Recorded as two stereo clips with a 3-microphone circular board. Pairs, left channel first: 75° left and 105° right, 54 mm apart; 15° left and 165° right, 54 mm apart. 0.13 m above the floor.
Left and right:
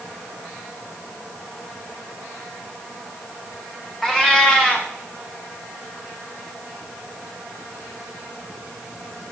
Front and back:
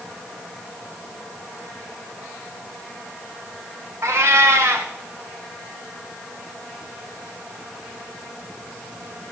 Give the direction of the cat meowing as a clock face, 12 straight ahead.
7 o'clock.